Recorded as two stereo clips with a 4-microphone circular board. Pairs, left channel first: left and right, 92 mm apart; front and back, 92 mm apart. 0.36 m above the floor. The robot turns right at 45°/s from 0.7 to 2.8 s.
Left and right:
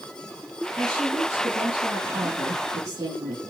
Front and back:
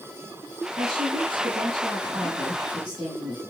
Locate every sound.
0.8 s a woman speaking: 155° left, 4.5 m; by 3.4 s 115° right, 4.5 m